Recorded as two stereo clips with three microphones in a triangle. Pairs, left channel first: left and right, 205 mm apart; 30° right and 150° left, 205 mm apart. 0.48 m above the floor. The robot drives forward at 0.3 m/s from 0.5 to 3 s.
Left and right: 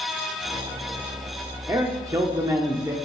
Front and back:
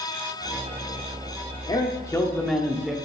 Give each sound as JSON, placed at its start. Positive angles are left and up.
{"t": 1.7, "sound": "a man speaking", "azimuth_deg": -40, "distance_m": 0.7}